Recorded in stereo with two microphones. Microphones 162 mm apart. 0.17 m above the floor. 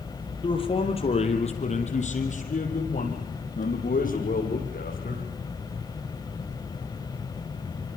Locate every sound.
0.4 s a man speaking: 30° left (ahead or behind), 4 m; by 5.2 s 60° left (ahead or behind), 7.5 m